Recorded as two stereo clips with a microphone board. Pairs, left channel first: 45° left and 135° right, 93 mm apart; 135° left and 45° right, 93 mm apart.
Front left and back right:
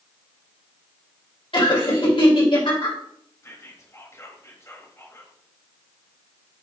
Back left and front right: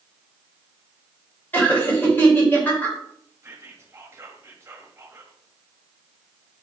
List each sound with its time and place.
1.5 s laughter: 65° left, 3 m
3.4 s whispering: straight ahead, 1.4 m